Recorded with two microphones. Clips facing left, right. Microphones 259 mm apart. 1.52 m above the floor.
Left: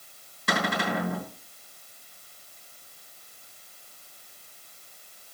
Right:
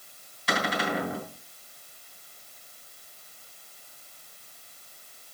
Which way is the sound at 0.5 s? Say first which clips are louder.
Left 1 dB; 55° left (ahead or behind).